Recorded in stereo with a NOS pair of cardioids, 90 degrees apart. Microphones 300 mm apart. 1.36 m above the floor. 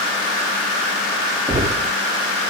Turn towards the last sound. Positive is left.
turn(degrees=-15)